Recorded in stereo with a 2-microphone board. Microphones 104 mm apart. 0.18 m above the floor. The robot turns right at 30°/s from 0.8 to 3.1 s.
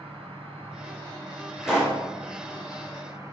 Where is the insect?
100° right, 1.1 m; by 3.3 s 30° right, 1.1 m.